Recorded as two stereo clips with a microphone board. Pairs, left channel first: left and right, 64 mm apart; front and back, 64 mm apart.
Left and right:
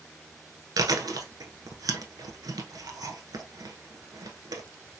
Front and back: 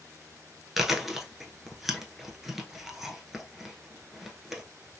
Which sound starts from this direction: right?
Chewing, at 0.8 s.